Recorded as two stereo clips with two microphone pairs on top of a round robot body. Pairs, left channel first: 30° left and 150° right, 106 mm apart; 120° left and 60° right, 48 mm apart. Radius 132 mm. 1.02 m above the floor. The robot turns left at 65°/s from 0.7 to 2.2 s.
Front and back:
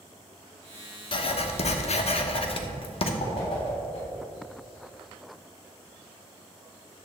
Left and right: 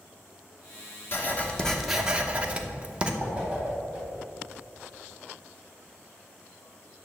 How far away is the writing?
About 1.0 m.